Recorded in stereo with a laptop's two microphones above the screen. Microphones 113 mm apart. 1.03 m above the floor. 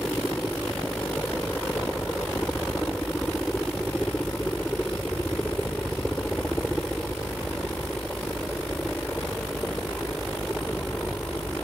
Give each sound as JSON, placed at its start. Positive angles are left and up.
{"t": 0.0, "sound": "a helicopter", "side_deg": 5}